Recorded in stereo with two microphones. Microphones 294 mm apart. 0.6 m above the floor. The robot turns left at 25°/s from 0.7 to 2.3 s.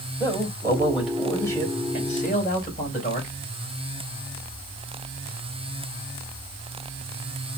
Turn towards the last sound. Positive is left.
turn(degrees=150)